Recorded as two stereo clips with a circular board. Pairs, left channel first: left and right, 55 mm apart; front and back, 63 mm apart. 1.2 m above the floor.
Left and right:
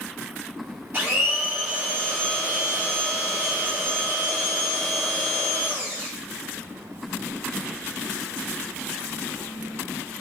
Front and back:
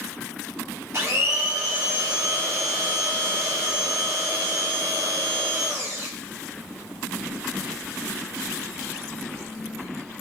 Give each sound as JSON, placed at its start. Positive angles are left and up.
{"t": 0.9, "sound": "a blender", "azimuth_deg": -145, "distance_m": 2.5}